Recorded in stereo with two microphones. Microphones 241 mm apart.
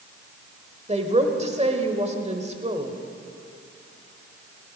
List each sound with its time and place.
0.9 s a woman speaking: 25° right (ahead or behind), 1.3 m